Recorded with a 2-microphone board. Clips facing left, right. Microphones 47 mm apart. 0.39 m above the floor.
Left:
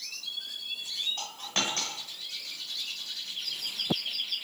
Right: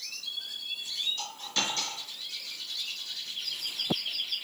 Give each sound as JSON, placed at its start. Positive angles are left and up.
{"t": 1.2, "sound": "a dropped coin", "side_deg": 55, "distance_m": 1.1}